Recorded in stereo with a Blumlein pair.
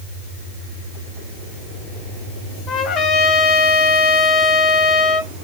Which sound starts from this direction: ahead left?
A trumpet, at 2.7 s.